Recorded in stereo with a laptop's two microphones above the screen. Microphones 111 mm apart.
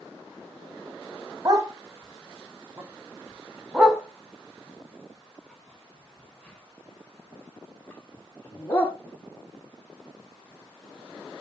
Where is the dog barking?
35° right (ahead or behind), 3.5 m; by 8.9 s 20° left (ahead or behind), 7.5 m.